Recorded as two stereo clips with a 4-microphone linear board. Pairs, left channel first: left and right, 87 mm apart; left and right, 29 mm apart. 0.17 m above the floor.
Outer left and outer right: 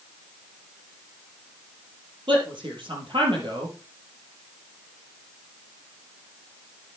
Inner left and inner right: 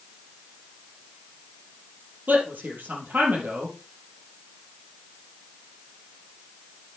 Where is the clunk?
No clunk in this recording.